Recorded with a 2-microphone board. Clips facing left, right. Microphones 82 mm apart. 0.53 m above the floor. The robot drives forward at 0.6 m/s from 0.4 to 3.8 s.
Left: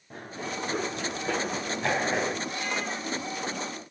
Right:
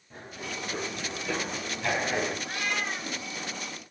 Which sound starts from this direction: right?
A cat meowing, at 2.5 s.